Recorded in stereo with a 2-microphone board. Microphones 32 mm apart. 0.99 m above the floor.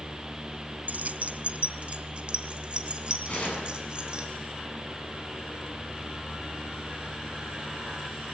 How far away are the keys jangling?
About 0.5 m.